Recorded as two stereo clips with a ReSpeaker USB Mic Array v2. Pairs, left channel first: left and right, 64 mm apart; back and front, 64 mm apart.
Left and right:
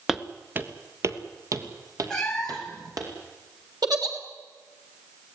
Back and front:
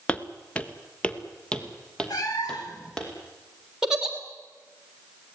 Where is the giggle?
80° right, 3 m.